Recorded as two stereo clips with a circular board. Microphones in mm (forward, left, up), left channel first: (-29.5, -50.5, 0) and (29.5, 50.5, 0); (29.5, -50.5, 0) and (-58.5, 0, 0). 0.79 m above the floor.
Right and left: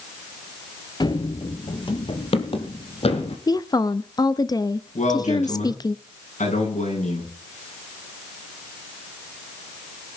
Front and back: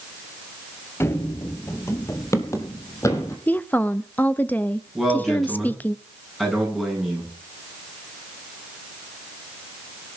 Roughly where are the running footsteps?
Right.